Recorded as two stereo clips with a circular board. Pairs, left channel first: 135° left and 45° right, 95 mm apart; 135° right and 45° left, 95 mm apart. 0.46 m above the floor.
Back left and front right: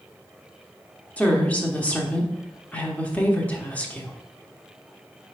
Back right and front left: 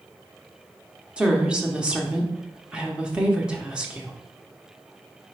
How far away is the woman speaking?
About 0.7 m.